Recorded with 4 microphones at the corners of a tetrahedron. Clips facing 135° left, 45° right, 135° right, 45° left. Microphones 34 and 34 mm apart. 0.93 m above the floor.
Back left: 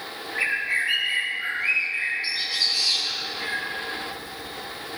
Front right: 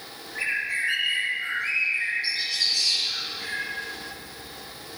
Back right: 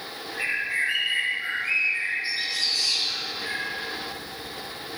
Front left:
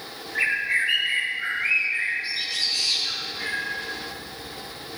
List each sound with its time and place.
0.3 s a bird: 70° left, 5.5 m